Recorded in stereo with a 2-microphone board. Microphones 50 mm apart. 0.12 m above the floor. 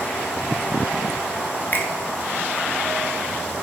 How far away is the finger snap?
About 1.1 m.